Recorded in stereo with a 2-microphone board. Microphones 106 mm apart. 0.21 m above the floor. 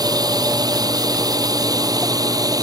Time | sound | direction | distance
0.0 | a drone | 40° right (ahead or behind) | ?